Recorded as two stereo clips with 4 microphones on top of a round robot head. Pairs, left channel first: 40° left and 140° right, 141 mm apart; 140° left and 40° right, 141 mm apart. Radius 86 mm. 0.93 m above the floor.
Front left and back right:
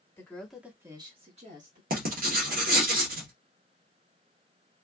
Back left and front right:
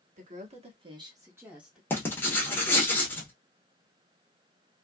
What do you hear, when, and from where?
0.2 s a woman speaking: 30° right, 1.2 m; by 1.8 s 125° right, 1.5 m
1.9 s writing: 145° right, 1.2 m